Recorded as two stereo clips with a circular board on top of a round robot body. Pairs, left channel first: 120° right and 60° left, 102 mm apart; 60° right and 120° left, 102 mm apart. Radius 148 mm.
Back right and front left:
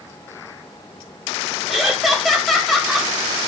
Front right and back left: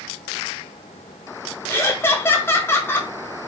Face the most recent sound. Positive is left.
turn(degrees=-30)